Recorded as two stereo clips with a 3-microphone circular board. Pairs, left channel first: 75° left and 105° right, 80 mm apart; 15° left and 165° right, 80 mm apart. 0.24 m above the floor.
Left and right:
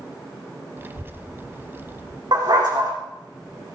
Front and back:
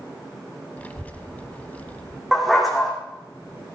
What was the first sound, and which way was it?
A child speaking, 50° right.